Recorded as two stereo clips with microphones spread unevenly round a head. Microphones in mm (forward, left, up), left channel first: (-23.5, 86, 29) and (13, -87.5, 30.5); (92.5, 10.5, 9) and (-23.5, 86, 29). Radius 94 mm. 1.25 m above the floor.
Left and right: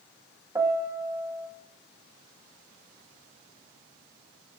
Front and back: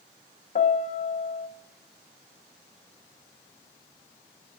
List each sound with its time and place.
0.6 s a piano: 5° right, 0.8 m